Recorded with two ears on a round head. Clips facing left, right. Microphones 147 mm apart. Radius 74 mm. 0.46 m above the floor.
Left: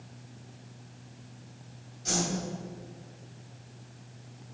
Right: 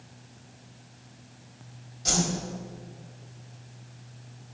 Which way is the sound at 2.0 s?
60° right (ahead or behind).